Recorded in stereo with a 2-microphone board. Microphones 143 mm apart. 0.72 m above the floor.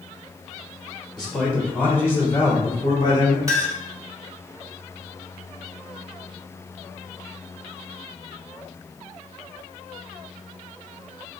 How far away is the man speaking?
About 2.0 m.